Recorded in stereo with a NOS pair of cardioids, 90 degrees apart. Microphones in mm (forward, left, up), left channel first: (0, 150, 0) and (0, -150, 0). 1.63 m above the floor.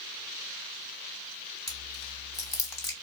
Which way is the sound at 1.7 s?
10° left.